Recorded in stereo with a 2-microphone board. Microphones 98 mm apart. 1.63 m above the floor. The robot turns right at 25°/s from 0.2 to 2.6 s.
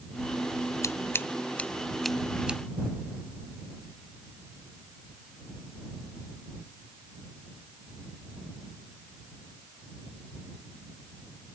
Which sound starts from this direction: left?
Scissors, at 0.8 s.